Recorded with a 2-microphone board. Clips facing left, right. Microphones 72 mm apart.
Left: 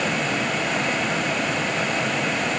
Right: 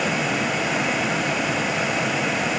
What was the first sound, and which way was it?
Only background noise.